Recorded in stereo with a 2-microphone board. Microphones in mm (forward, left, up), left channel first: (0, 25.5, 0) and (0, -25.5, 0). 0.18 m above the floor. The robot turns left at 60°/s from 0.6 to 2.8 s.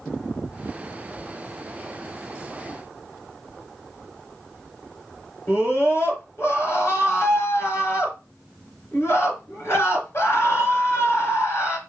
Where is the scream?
55° left (ahead or behind), 2.5 m.